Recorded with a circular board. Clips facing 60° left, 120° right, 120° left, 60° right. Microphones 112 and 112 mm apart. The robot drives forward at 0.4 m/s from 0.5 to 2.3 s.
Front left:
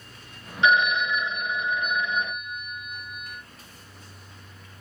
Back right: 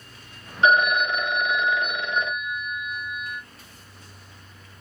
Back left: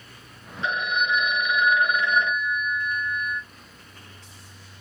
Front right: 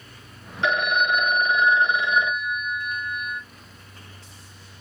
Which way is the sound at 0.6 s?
70° right.